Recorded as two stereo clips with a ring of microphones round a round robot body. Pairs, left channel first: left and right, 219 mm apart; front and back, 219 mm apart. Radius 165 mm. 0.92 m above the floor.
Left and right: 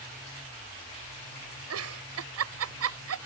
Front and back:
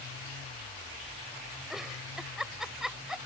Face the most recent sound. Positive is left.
turn(degrees=-90)